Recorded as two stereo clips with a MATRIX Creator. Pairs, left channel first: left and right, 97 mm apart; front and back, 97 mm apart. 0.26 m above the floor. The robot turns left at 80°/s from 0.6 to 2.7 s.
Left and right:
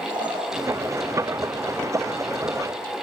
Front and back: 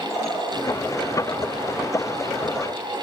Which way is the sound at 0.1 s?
55° right.